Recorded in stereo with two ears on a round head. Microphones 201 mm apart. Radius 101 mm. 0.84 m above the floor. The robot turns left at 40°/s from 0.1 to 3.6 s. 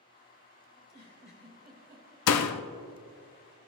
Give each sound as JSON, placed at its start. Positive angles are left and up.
{"t": 0.8, "sound": "a giggle", "azimuth_deg": 35, "distance_m": 3.0}
{"t": 2.3, "sound": "a door slam", "side_deg": 75, "distance_m": 0.5}